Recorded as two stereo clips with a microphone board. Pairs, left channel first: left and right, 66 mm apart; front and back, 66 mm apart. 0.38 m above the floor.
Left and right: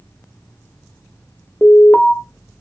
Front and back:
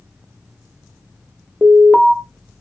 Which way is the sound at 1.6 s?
115° left.